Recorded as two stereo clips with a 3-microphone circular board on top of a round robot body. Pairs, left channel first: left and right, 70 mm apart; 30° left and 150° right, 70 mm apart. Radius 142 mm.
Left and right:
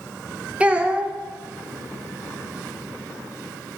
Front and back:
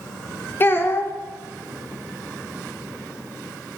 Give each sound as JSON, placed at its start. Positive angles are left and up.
{"t": 0.6, "sound": "a child speaking", "azimuth_deg": -25, "distance_m": 0.6}